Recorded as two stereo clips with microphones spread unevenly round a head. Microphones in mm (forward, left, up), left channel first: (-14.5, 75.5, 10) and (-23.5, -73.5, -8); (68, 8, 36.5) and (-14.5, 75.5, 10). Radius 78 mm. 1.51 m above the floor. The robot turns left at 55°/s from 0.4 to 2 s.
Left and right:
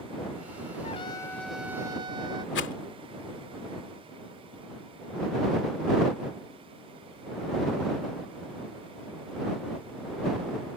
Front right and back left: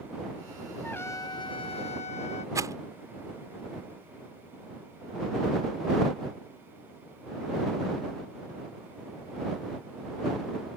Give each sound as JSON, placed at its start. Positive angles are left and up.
{"t": 0.8, "sound": "a trumpet", "azimuth_deg": 35}
{"t": 2.5, "sound": "a rattle", "azimuth_deg": 80}